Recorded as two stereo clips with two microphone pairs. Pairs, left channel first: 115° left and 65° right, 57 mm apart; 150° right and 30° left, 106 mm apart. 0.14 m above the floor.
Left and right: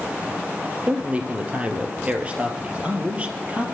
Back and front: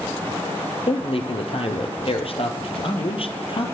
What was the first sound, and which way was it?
A man speaking, 130° right.